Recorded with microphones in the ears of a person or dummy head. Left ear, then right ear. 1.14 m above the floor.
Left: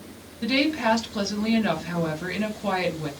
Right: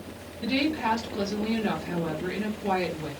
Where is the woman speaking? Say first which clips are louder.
Left 4 dB; 25° left (ahead or behind), 1.1 m.